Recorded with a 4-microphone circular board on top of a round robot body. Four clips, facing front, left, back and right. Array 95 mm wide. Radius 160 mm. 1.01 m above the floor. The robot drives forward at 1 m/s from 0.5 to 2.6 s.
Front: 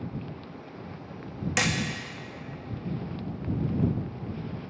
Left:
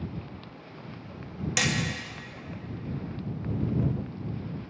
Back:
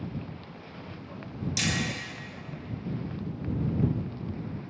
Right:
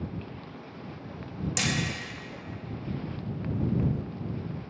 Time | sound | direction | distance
1.6 | hammering | 10° left | 1.0 m